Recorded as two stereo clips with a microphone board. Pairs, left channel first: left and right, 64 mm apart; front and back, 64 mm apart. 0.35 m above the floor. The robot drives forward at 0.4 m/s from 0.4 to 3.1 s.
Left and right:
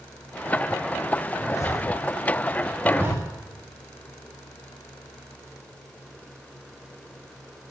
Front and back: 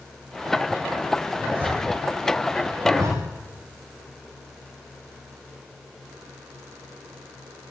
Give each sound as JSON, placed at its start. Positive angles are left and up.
{"t": 1.3, "sound": "a zipper", "azimuth_deg": 120, "distance_m": 9.0}
{"t": 2.8, "sound": "a zipper", "azimuth_deg": -150, "distance_m": 9.5}